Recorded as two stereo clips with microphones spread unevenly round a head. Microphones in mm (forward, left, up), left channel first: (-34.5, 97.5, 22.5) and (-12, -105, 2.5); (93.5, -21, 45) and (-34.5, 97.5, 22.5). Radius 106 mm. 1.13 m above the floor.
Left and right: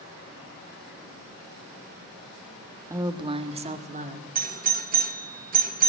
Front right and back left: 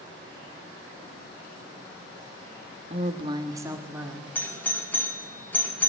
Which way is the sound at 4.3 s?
125° right.